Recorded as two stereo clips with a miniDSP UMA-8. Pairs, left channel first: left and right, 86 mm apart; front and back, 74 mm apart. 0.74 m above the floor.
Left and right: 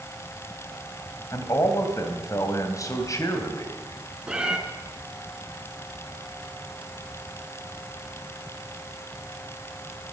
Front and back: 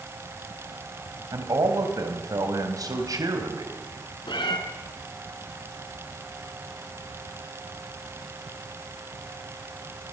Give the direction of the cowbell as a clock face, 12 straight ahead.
No cowbell in this recording.